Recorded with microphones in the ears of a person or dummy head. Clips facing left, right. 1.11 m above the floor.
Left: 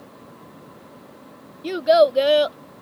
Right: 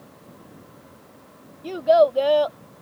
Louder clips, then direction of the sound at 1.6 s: Left 1 dB; 25° left (ahead or behind).